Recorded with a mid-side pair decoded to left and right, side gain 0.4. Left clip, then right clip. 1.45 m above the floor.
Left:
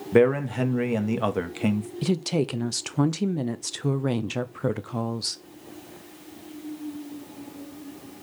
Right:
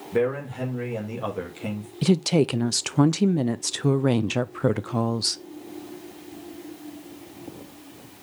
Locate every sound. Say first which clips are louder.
0.1 s a man speaking: left 5 dB; 60° left, 1.4 m
2.0 s a woman speaking: right 5 dB; 35° right, 0.5 m